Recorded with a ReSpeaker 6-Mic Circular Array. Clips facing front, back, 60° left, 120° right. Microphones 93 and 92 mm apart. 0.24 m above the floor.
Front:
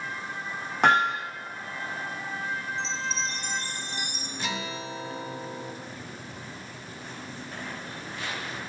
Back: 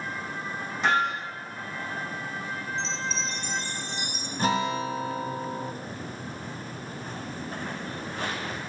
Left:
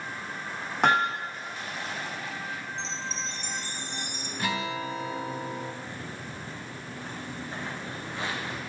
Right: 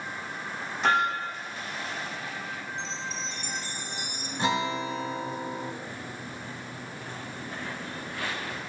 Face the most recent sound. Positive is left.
turn(degrees=130)